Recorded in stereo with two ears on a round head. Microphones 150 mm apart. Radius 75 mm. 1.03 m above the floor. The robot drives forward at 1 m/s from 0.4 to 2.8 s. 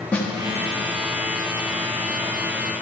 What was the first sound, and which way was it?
A snare drum, 10° left (ahead or behind).